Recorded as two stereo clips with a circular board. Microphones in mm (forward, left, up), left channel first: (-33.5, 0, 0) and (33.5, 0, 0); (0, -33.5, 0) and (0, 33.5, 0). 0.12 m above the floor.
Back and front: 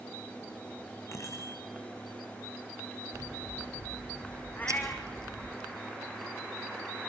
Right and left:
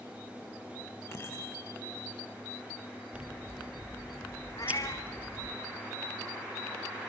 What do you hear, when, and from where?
1.1 s a bicycle bell: 140° right, 7 m
3.1 s scissors: 25° left, 2.5 m
4.6 s a cat meowing: 115° right, 3.5 m